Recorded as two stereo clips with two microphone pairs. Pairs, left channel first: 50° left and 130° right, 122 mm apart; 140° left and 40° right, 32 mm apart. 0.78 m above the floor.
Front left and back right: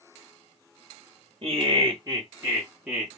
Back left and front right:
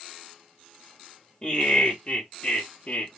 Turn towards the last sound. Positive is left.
turn(degrees=135)